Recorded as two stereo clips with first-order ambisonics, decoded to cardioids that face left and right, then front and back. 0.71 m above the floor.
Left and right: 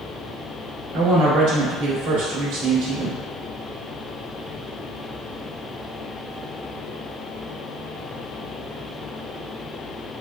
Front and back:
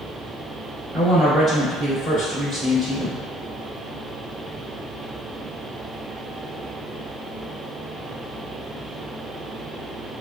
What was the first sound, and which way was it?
A woman speaking, 120° right.